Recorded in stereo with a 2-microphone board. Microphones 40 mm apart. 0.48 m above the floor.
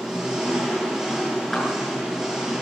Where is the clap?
10° left (ahead or behind), 7 m.